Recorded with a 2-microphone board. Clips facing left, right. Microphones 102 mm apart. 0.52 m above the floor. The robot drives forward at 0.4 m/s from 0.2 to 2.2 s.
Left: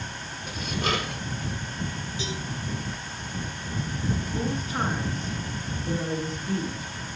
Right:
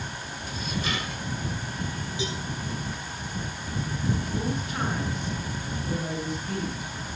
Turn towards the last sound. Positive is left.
turn(degrees=35)  # may be behind; listen again after turning